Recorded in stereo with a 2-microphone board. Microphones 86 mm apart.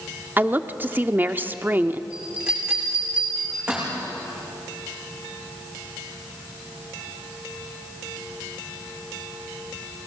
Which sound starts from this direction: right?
A woman speaking, at 0.4 s.